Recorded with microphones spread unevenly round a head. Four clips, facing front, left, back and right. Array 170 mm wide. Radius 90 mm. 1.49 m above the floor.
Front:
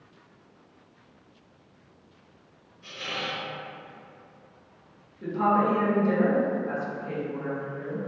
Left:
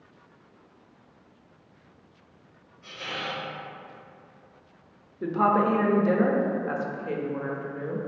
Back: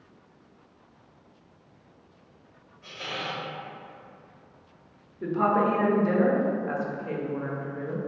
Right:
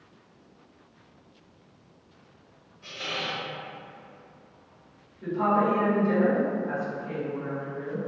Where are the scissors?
I don't hear scissors.